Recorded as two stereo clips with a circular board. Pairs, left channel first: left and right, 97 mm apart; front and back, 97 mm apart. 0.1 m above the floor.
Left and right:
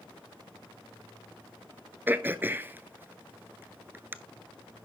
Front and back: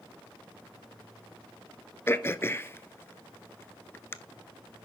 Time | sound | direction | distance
2.1 | throat clearing | 40° right | 0.6 m